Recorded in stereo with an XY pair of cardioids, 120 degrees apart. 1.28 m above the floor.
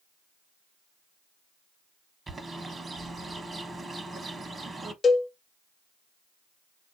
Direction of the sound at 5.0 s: 35° left.